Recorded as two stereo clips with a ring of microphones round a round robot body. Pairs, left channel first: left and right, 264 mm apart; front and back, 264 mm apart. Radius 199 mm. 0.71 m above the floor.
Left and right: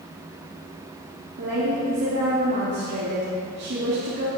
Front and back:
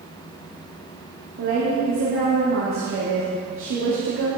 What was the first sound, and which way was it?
A woman speaking, 140° right.